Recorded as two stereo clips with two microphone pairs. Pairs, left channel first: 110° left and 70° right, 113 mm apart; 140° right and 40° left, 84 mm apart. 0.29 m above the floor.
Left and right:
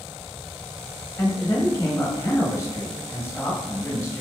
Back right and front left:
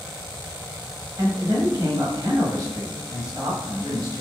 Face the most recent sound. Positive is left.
turn(degrees=55)